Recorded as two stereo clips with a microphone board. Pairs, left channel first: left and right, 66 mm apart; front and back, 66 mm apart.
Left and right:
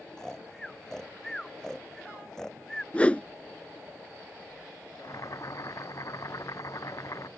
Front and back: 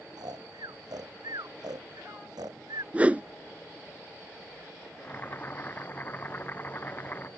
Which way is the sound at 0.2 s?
175° left.